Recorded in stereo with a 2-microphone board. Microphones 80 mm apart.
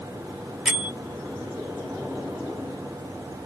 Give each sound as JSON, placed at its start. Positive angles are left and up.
{"t": 0.7, "sound": "a bell", "side_deg": -10, "distance_m": 1.1}